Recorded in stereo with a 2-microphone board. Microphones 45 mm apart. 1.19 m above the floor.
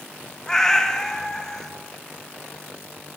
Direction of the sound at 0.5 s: 10° left (ahead or behind).